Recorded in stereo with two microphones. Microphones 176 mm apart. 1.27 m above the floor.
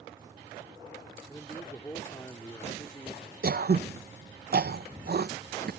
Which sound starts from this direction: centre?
A man speaking, at 1.3 s.